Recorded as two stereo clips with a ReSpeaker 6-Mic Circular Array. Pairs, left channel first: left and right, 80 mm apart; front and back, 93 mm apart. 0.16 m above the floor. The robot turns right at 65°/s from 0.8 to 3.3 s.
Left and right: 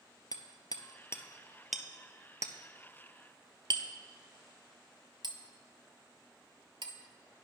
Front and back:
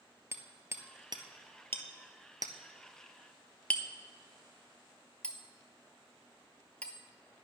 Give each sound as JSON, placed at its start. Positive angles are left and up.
{"t": 0.3, "sound": "hammering", "azimuth_deg": 120, "distance_m": 0.7}